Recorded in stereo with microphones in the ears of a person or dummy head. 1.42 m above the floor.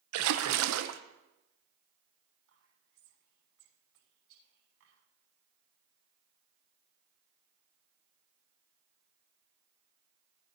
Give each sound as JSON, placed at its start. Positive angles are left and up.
{"t": 0.1, "sound": "a splash", "side_deg": -80, "distance_m": 0.8}
{"t": 2.5, "sound": "whispering", "side_deg": -70, "distance_m": 6.0}